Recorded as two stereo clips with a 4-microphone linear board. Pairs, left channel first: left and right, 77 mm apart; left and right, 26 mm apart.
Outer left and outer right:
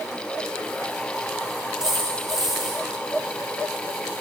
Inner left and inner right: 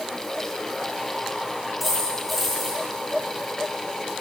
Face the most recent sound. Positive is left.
turn(degrees=-5)  # may be behind; listen again after turning